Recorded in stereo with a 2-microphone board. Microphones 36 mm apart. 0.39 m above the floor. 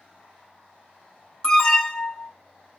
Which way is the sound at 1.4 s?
20° left (ahead or behind).